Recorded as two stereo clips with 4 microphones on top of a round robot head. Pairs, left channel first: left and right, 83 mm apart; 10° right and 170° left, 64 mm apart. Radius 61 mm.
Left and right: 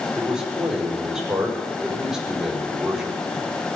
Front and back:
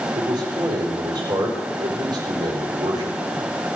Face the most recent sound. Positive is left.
turn(degrees=-175)